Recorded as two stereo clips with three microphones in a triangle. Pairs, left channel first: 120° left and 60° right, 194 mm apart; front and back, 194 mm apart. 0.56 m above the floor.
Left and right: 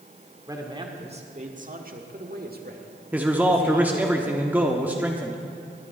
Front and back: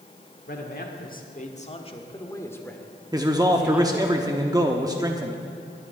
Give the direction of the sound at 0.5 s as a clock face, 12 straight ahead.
12 o'clock.